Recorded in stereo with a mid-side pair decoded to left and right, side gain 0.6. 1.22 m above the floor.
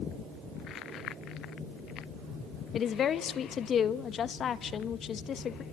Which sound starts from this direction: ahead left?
A woman speaking, at 2.7 s.